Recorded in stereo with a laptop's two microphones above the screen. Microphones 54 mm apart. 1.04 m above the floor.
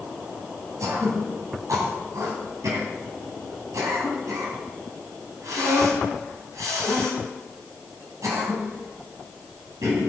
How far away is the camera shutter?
No camera shutter in this recording.